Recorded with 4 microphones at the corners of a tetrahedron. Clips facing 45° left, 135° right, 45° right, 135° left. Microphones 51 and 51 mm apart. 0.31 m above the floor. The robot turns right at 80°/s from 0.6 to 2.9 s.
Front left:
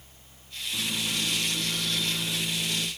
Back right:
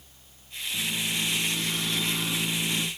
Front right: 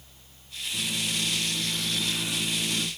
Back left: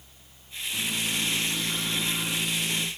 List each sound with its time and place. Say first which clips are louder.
0.7 s a microwave: back right 1 dB, back left 1 dB; 80° left, 2.5 m; by 2.9 s 110° right, 2.5 m